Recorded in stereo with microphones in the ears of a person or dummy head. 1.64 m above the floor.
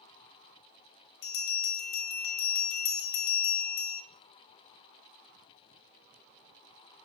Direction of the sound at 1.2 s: 60° left (ahead or behind).